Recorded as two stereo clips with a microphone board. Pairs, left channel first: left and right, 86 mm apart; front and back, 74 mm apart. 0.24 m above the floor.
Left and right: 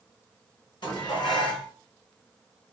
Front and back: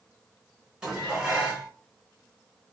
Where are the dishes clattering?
100° left, 1.9 m.